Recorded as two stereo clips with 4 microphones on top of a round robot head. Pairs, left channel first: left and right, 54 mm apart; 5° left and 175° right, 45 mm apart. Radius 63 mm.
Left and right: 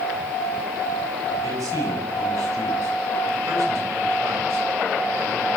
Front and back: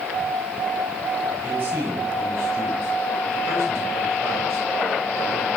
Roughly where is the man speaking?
Behind right.